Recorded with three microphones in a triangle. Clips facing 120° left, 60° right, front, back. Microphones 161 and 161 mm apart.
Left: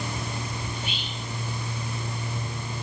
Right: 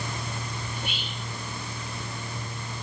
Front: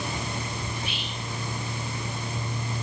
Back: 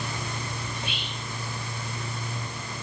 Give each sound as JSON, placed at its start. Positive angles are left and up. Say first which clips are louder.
{"t": 0.7, "sound": "whispering", "louder": "left 1 dB, front 1 dB", "azimuth_deg": -65, "distance_m": 2.5}